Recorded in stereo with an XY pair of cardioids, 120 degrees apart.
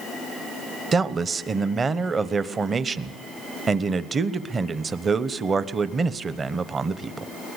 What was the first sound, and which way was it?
A man speaking, 35° right.